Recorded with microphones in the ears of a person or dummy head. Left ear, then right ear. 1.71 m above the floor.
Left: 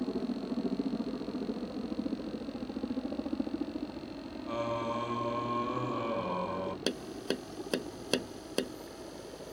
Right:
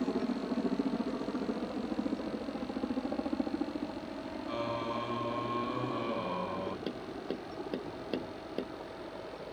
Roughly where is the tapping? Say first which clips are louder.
Left 4 dB; left.